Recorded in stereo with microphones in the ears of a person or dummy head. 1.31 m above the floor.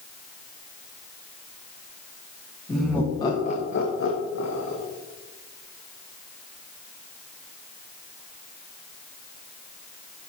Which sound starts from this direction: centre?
Laughter, at 2.7 s.